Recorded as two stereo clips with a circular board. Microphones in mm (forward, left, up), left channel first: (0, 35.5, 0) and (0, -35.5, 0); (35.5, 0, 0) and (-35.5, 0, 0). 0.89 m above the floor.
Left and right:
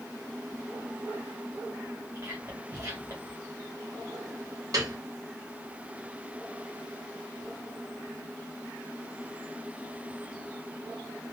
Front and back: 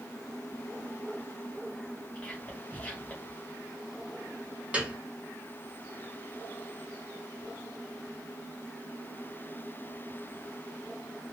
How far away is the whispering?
About 0.8 m.